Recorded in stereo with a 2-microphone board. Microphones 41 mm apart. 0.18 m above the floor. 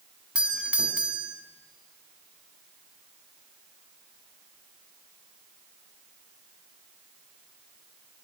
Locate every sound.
0.3 s a doorbell: 25° right (ahead or behind), 2.0 m